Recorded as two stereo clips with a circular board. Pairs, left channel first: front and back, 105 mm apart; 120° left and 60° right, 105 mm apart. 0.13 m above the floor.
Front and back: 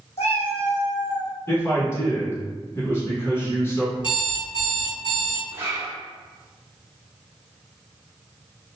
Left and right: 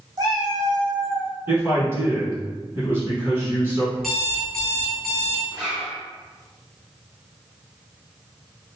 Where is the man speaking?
25° right, 1.1 m.